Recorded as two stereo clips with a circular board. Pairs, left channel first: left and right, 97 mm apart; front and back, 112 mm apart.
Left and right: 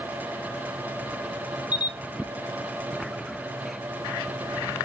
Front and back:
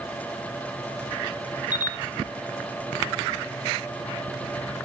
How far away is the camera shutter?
About 0.7 m.